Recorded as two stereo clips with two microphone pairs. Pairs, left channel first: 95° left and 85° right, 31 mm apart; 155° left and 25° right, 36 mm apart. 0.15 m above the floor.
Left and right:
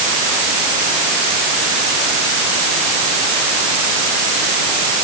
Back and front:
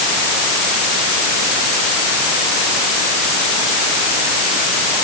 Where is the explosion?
No explosion in this recording.